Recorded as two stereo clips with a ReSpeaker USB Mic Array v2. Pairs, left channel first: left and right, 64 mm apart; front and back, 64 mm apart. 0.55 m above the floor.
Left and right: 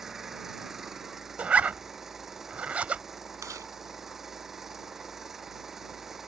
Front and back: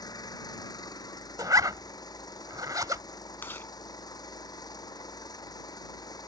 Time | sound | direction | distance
0.0 | an engine running | 5° right | ?
1.4 | a zipper | 160° right | ?
3.4 | chewing | 55° right | ?